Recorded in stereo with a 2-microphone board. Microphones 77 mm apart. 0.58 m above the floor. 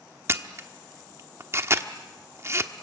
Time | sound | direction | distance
0.3 | a camera shutter | 35° right (ahead or behind) | 1.2 m